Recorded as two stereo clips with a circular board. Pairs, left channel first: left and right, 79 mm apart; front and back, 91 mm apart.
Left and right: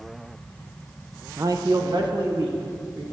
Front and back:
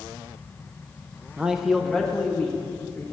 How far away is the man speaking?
About 0.5 m.